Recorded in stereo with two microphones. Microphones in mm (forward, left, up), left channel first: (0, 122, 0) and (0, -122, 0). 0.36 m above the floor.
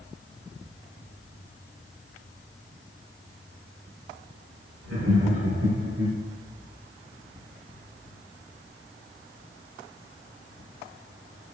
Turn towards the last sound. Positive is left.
turn(degrees=-75)  # may be behind; listen again after turning